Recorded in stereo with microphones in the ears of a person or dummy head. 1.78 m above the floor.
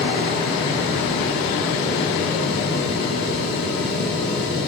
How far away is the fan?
About 3 m.